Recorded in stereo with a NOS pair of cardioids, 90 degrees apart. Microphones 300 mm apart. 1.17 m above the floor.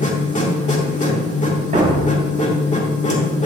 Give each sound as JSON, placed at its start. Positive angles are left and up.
{"t": 0.0, "sound": "a machine running", "azimuth_deg": 25, "distance_m": 2.0}
{"t": 1.7, "sound": "a thud", "azimuth_deg": -25, "distance_m": 3.0}